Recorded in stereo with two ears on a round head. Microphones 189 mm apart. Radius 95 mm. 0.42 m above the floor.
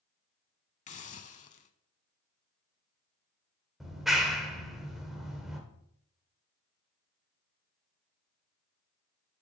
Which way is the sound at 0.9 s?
35° left (ahead or behind).